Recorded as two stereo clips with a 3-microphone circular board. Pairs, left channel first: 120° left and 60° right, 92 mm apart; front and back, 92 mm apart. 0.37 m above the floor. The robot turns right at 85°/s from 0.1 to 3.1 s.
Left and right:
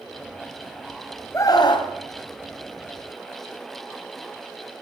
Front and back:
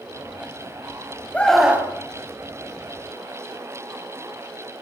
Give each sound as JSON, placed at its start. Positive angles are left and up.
{"t": 1.3, "sound": "a scream", "azimuth_deg": 70, "distance_m": 3.0}